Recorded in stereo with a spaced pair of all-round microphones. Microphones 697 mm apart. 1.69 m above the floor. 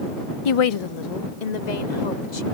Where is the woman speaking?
45° left (ahead or behind); by 2.4 s 80° left.